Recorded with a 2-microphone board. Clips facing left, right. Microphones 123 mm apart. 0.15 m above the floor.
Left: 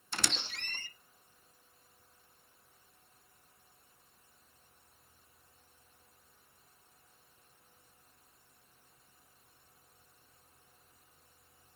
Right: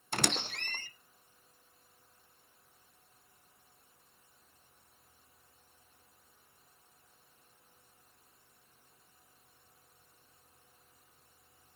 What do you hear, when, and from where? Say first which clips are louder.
0.1 s a squeak: right 5 dB; 55° right (ahead or behind), 0.6 m